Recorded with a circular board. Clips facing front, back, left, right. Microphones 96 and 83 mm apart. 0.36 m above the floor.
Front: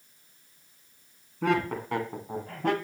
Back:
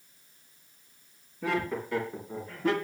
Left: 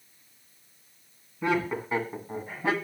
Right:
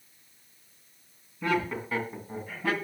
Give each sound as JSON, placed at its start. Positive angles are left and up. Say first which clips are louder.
{"t": 1.4, "sound": "laughter", "louder": "front 4 dB, left 1 dB", "azimuth_deg": 20, "distance_m": 3.0}